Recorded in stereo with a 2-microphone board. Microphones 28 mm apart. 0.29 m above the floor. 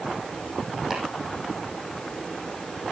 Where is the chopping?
10° right (ahead or behind), 6.5 m.